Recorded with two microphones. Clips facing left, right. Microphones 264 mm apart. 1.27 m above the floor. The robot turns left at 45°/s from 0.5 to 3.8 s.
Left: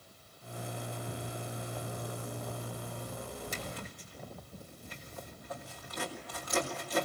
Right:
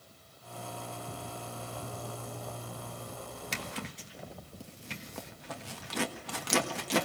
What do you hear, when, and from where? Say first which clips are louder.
3.5 s a zipper: right 2 dB; 75° right (ahead or behind), 1.4 m; by 7.0 s 90° right, 1.4 m